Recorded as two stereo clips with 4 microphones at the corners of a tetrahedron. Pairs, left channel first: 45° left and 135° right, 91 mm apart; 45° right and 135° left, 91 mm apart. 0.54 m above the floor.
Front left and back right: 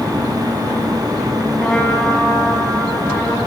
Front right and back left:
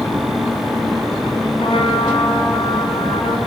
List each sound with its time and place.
1.6 s a trumpet: 35° right, 5.5 m